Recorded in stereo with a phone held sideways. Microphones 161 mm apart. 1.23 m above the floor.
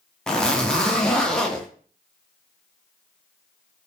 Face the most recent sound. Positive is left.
turn(degrees=5)  # may be behind; listen again after turning